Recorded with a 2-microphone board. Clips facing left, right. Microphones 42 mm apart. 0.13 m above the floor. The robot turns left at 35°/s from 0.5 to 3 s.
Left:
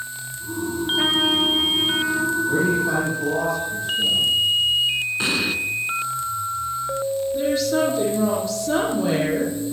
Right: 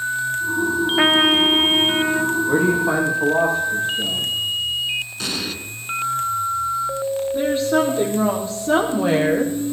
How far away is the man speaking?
About 8 m.